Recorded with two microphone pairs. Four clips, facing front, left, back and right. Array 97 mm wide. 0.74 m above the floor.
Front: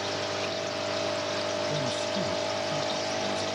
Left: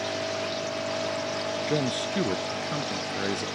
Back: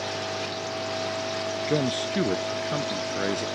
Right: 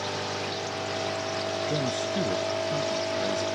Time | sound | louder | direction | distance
1.7 | a man speaking | left 3 dB, back 4 dB | 155° left | ?